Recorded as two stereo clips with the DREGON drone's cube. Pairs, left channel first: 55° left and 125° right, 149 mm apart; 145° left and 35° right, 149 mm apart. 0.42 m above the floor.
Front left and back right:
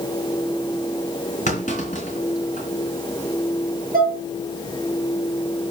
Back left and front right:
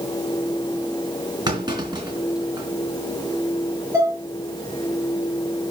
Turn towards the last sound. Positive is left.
turn(degrees=-105)